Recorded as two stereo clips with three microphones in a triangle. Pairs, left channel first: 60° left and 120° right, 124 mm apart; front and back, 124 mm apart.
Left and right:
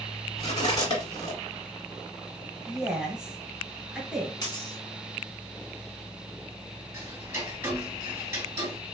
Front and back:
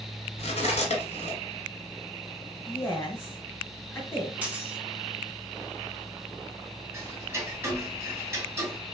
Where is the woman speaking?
45° right, 1.3 m.